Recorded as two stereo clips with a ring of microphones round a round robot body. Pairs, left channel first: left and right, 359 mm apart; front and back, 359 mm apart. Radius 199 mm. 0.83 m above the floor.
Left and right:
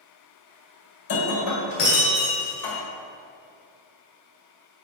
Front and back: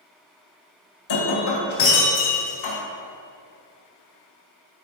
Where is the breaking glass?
50° left, 1.9 m.